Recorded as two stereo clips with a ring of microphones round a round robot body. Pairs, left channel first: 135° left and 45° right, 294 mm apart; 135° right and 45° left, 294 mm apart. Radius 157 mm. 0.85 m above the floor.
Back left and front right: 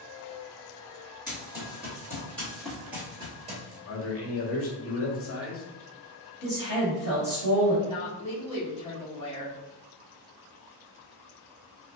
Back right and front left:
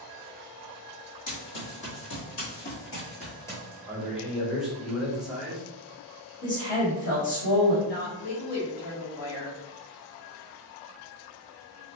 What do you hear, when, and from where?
1.3 s running footsteps: 150° right, 2.0 m; by 3.8 s 30° right, 0.9 m
3.9 s a man speaking: 130° left, 0.9 m
6.4 s a woman speaking: 170° right, 1.6 m
7.8 s a woman speaking: 155° right, 1.3 m